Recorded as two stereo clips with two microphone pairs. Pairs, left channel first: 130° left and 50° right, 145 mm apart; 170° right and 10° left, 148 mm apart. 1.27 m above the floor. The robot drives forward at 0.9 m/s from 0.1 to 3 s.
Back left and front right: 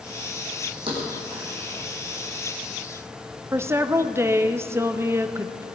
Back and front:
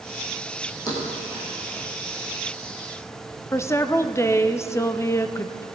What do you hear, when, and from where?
0.9 s a thud: 105° right, 4 m; by 1.5 s 110° right, 4.5 m
3.5 s a woman speaking: 110° right, 0.6 m